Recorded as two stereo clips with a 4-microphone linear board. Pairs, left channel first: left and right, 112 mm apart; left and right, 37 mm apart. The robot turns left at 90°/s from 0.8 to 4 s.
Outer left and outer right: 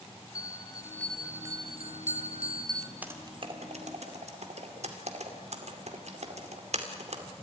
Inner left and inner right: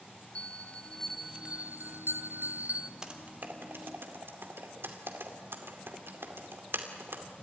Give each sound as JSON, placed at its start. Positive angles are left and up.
{"t": 0.3, "sound": "a bell", "azimuth_deg": 30, "distance_m": 1.0}
{"t": 3.0, "sound": "typing on a keyboard", "side_deg": -15, "distance_m": 2.5}